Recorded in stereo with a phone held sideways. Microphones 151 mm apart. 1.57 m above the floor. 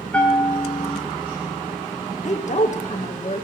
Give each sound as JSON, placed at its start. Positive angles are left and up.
{"t": 0.1, "sound": "a bell", "side_deg": 10, "distance_m": 2.5}
{"t": 2.2, "sound": "a woman speaking", "side_deg": 55, "distance_m": 1.4}